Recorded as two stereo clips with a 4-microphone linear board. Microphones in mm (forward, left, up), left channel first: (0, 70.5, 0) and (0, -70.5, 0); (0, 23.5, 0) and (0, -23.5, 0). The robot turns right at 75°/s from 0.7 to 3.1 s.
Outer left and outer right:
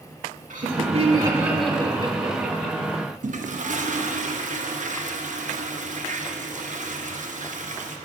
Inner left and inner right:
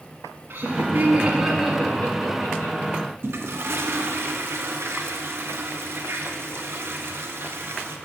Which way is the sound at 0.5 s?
65° right (ahead or behind).